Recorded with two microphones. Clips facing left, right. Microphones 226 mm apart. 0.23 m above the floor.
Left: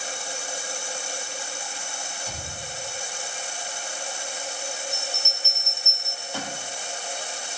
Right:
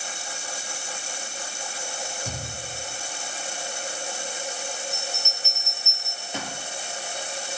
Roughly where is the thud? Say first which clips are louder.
Right 2 dB; right.